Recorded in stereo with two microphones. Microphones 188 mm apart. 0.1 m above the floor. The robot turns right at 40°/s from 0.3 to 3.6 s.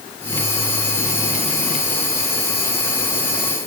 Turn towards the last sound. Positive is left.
No sound to turn to.